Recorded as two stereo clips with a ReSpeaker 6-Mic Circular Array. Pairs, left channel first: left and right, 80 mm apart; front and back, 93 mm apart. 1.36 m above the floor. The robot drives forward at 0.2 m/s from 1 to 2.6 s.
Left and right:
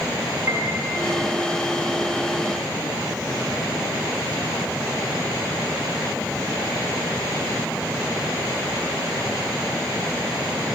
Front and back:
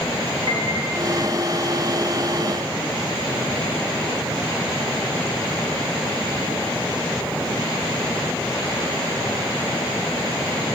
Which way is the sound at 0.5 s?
155° right.